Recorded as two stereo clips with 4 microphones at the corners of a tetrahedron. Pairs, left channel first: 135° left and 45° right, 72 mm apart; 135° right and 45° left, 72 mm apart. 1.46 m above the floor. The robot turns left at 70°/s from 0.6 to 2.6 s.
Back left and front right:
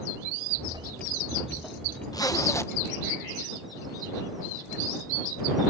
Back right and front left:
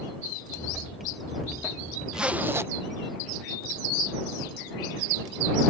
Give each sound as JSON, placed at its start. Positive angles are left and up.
{"t": 0.7, "sound": "a whoosh", "azimuth_deg": -40}
{"t": 2.1, "sound": "a zipper", "azimuth_deg": 125}